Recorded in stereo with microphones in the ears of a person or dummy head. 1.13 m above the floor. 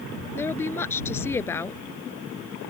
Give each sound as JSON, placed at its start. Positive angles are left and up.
{"t": 0.4, "sound": "a woman speaking", "side_deg": 10}